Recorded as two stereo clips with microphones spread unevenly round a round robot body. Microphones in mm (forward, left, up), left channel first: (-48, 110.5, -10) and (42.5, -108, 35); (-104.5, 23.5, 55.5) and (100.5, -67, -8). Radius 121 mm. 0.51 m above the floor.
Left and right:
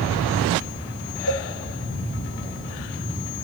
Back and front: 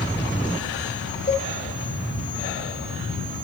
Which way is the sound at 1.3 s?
85° left.